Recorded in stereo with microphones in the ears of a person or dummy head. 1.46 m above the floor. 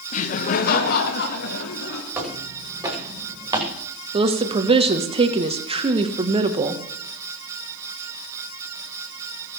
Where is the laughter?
40° left (ahead or behind), 0.8 m; by 2.0 s 60° left (ahead or behind), 2.5 m.